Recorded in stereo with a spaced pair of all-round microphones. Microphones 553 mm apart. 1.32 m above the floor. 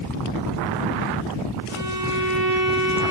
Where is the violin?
80° right, 6.5 m.